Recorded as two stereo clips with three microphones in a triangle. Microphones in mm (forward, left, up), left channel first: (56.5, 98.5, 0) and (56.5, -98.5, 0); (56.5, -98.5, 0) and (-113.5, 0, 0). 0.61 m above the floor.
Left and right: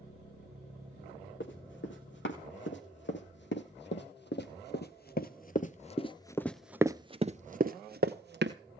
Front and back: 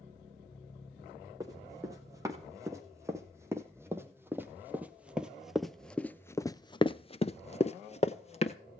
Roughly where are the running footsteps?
Left.